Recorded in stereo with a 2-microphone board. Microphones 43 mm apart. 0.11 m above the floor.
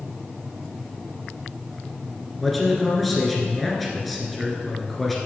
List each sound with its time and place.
2.4 s a man speaking: centre (ahead or behind), 1.7 m